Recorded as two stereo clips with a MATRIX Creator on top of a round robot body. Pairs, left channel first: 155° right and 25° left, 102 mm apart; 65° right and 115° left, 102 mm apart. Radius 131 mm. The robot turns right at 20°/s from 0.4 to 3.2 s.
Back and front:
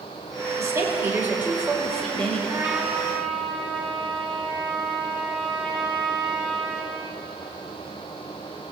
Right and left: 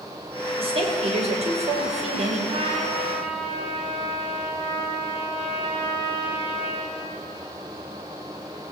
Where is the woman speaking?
80° left, 5.5 m; by 2.4 s 120° left, 5.5 m.